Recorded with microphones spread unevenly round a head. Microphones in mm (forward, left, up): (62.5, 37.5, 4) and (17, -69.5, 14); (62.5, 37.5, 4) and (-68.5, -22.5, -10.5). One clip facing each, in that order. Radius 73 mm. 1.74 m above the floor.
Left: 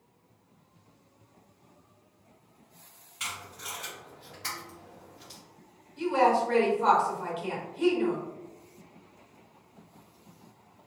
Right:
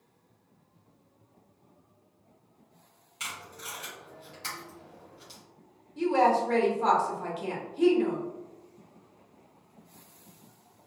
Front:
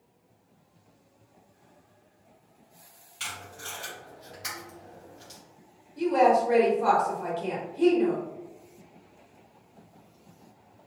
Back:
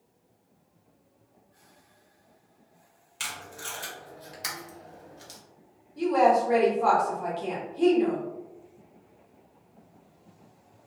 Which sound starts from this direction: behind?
Tape being pulled, at 3.2 s.